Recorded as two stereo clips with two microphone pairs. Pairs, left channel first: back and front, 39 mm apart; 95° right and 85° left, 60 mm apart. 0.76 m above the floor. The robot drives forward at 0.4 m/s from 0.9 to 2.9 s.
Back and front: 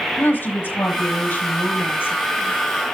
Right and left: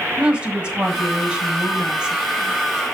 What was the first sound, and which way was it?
A woman speaking, 160° left.